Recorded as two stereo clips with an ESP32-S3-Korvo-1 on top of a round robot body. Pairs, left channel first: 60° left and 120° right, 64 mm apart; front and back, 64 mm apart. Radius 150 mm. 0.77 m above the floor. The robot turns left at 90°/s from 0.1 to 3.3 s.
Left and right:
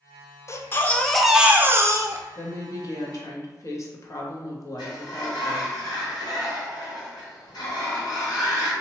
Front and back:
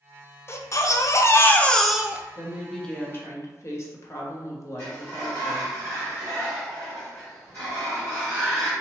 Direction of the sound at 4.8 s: 60° left.